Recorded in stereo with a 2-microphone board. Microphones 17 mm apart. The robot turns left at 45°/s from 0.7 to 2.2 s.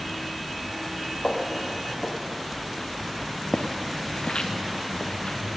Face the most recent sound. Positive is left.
turn(degrees=60)  # may be behind; listen again after turning